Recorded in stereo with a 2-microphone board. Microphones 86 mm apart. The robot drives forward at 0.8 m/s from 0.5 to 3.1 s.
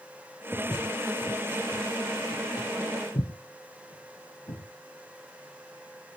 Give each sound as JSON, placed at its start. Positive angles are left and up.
{"t": 0.5, "sound": "footsteps", "side_deg": 5, "distance_m": 4.5}